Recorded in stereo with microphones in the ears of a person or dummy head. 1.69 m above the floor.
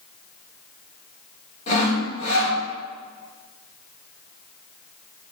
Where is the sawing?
40° left (ahead or behind), 3.5 m.